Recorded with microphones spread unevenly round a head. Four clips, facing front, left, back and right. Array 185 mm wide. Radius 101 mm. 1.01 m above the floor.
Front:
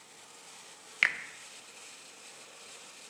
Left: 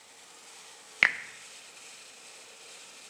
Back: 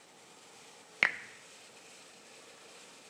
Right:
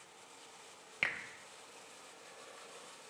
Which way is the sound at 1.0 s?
90° left.